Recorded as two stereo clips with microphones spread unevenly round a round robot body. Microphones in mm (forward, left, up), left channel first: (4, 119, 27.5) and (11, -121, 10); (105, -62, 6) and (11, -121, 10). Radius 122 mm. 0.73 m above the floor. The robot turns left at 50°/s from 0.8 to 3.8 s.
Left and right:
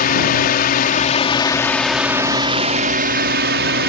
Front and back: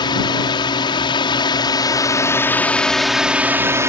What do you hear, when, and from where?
0.0 s a drone: 55° left; by 3.9 s 95° right